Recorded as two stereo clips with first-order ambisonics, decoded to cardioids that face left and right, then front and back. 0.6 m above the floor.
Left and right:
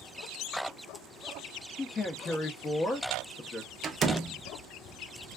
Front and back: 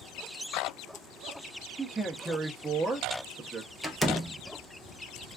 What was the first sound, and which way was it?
A man speaking, 105° left.